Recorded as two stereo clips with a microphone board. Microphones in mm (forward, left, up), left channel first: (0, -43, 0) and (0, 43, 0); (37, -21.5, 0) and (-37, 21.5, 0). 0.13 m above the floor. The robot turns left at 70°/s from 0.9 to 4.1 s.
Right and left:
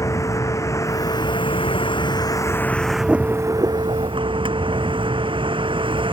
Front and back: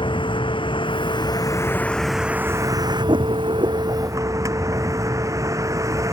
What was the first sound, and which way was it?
A vehicle, 35° right.